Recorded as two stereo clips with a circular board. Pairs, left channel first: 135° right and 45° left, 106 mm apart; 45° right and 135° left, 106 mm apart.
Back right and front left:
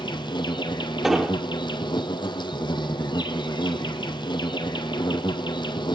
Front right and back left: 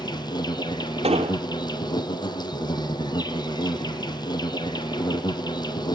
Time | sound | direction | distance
0.0 | an insect | 90° right | 1.5 m
1.0 | an explosion | 130° left | 1.3 m